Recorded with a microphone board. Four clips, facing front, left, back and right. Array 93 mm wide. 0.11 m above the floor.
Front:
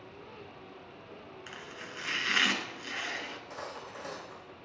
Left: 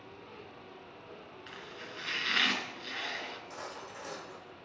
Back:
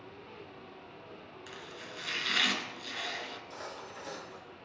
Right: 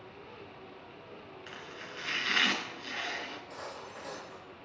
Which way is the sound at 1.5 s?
15° right.